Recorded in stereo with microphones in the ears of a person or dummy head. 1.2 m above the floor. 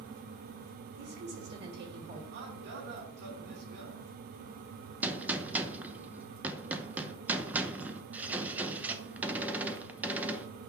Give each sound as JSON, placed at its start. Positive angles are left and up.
{"t": 1.0, "sound": "a woman speaking", "side_deg": -60, "distance_m": 2.5}
{"t": 2.3, "sound": "a man speaking", "side_deg": -60, "distance_m": 3.0}
{"t": 5.0, "sound": "a gunshot", "side_deg": 0, "distance_m": 0.8}